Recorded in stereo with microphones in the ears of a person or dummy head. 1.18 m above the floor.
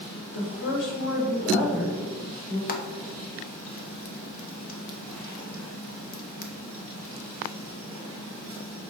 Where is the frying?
50° left (ahead or behind), 0.9 m.